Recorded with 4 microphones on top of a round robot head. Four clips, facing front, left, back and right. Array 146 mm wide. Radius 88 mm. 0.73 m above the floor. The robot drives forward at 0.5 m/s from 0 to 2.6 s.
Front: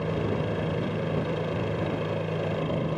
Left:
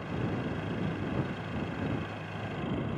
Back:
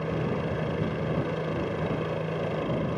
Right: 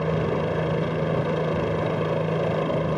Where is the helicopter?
80° right; by 3.0 s 85° right.